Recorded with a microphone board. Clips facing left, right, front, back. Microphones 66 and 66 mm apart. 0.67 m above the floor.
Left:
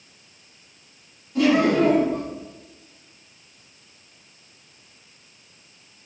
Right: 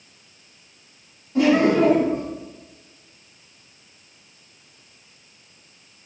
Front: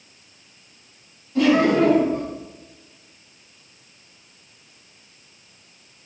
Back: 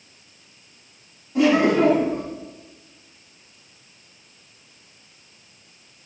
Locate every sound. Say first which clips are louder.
1.4 s laughter: right 1 dB, even; 125° right, 0.9 m